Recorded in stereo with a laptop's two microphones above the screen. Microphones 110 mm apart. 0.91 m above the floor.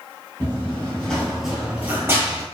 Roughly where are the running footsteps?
Left.